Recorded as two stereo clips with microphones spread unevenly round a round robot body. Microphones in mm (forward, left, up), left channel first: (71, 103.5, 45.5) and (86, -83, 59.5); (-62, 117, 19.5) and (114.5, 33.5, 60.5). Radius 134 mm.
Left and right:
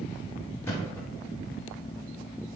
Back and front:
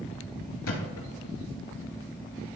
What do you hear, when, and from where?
0.6 s a thud: 175° left, 1.9 m